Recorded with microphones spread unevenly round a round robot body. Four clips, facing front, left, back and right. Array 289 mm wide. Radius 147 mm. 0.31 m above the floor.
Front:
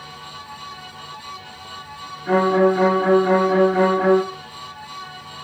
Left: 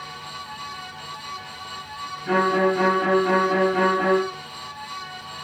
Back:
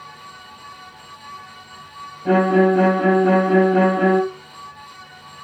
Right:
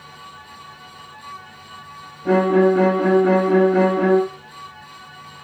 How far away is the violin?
About 4.5 m.